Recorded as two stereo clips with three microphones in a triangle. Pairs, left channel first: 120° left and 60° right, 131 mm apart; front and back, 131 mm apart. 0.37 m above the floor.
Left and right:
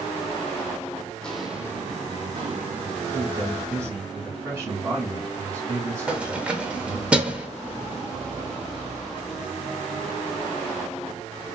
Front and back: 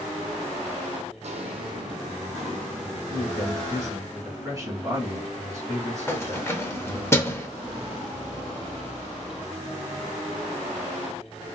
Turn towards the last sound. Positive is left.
turn(degrees=0)